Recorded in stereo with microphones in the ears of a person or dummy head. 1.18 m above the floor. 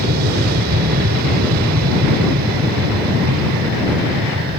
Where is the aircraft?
55° right (ahead or behind).